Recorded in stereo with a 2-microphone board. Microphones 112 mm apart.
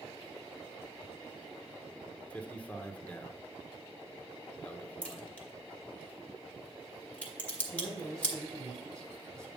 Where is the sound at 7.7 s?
5° left (ahead or behind), 2 m.